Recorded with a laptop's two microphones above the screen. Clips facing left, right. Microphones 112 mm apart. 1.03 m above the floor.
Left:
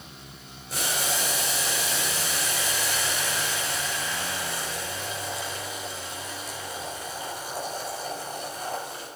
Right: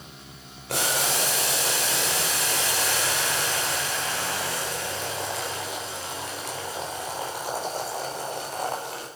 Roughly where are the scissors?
No scissors in this recording.